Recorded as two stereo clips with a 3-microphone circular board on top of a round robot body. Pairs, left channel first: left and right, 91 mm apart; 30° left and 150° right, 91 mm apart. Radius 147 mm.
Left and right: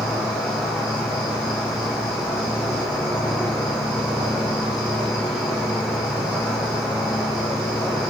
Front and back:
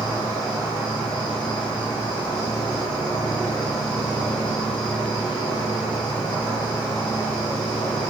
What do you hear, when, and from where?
0.0 s an insect: 5° right, 3 m